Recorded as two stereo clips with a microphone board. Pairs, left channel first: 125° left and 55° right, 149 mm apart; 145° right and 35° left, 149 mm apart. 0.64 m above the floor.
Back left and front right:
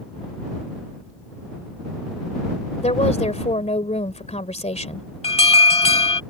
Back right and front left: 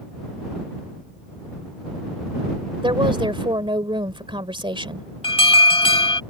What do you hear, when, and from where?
2.8 s a woman speaking: 85° left
5.2 s an alarm: 165° left